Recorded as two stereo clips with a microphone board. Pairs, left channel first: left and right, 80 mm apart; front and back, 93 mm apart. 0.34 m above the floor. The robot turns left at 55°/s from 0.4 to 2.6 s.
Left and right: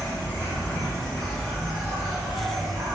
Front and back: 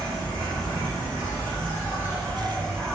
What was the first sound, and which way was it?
An insect, 50° left.